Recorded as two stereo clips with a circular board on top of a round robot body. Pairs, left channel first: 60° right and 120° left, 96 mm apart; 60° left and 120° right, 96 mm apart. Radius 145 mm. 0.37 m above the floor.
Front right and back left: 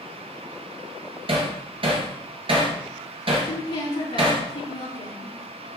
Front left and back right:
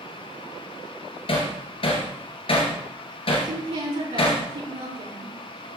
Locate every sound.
1.3 s hammering: 90° left, 3 m
3.4 s a woman speaking: 105° right, 5.5 m